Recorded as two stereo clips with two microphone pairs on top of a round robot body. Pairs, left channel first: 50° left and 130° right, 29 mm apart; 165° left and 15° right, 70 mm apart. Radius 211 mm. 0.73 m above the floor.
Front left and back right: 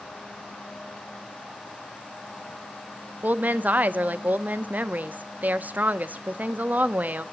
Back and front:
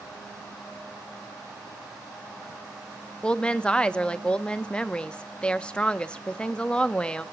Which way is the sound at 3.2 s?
125° right.